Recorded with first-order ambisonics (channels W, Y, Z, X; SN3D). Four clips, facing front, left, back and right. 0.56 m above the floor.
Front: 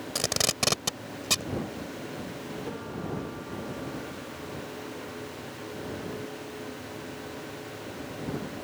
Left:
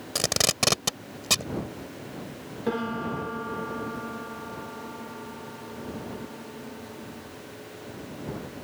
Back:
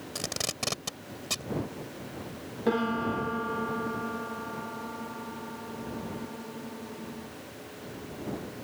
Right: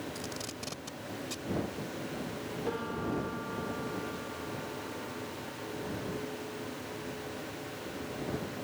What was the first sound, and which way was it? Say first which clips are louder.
Tape being pulled: left 15 dB, front 6 dB; 70° left.